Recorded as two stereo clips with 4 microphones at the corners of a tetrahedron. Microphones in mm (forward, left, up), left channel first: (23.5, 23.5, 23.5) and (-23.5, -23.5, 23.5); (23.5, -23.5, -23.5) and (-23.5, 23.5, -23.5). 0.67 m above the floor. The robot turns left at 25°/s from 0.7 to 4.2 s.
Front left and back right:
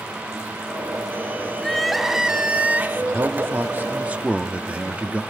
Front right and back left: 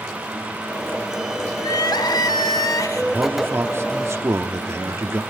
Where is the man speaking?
170° right, 1.3 m; by 5.2 s 160° left, 1.3 m.